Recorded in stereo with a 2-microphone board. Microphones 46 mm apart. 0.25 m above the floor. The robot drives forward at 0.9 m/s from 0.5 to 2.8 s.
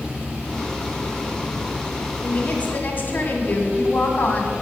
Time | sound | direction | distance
2.2 | a woman speaking | 35° left (ahead or behind) | 2.5 m